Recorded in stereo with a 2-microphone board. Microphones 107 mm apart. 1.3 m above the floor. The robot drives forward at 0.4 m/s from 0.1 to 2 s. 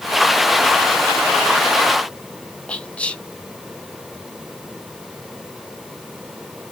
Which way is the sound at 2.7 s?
10° left (ahead or behind).